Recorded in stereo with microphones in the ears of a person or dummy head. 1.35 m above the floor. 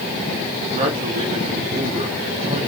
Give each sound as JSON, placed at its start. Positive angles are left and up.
{"t": 0.7, "sound": "a man speaking", "side_deg": -50, "distance_m": 3.0}